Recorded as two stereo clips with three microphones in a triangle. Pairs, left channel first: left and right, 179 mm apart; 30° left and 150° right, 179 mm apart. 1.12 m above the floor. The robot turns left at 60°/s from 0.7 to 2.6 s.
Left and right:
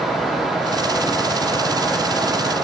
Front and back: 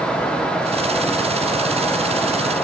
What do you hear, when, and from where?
Only background noise.